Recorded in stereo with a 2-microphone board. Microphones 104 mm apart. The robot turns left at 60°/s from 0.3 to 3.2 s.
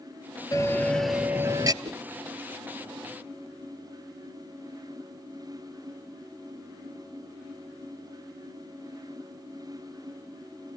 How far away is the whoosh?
About 1.9 m.